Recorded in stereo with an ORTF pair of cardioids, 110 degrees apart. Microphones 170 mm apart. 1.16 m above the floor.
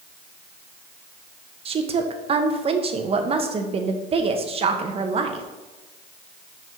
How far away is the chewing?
I don't hear chewing.